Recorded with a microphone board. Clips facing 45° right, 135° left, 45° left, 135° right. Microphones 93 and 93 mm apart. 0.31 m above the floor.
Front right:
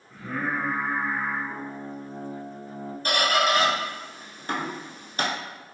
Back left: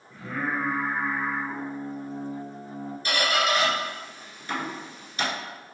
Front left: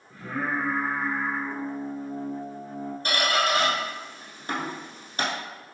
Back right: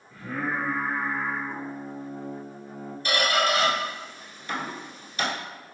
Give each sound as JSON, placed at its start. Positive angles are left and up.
{"t": 0.1, "sound": "singing", "azimuth_deg": 70, "distance_m": 1.9}
{"t": 3.0, "sound": "a squeak", "azimuth_deg": 0, "distance_m": 1.0}